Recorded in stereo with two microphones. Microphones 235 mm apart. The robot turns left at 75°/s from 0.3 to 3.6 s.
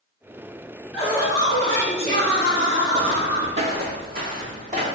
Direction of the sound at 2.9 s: 15° right (ahead or behind).